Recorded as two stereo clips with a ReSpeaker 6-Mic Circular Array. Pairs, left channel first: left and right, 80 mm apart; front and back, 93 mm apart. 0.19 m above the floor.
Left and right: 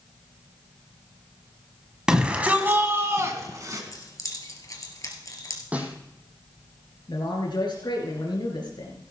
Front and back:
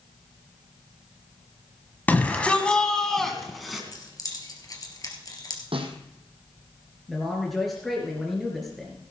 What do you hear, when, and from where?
2.1 s a shout: 30° right, 1.6 m; by 3.8 s 95° right, 2 m
3.9 s keys jangling: 45° left, 2.5 m
5.7 s a snare drum: 165° right, 1.6 m
7.1 s a man speaking: 90° left, 3 m